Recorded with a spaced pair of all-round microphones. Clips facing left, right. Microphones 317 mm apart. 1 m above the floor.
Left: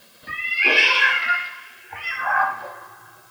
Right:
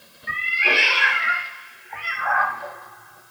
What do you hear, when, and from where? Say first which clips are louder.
0.3 s a cat meowing: left 2 dB; 40° left (ahead or behind), 0.8 m